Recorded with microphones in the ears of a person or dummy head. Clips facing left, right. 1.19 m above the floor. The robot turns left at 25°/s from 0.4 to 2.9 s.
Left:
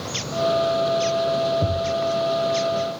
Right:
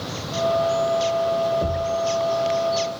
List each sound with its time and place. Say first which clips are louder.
1.6 s a thud: even; 15° right (ahead or behind), 1.8 m; by 2.0 s 25° right (ahead or behind), 1.8 m